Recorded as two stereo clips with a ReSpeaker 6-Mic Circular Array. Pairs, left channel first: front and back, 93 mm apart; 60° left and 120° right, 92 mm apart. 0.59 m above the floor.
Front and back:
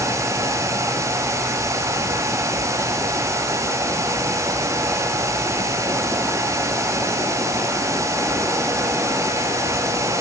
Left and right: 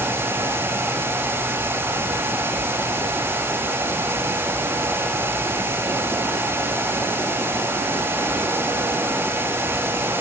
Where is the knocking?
No knocking in this recording.